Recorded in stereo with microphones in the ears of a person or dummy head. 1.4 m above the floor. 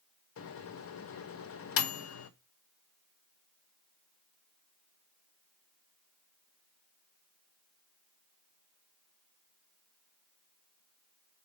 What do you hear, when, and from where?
0.4 s a microwave: 70° left (ahead or behind), 0.6 m